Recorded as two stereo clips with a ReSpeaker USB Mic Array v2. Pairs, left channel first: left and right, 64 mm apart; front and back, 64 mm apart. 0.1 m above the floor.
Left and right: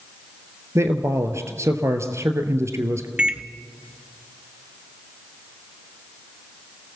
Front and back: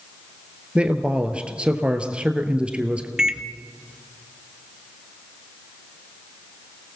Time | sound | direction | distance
0.8 | a man speaking | 110° right | 1.8 m
3.2 | a microwave | 120° right | 0.9 m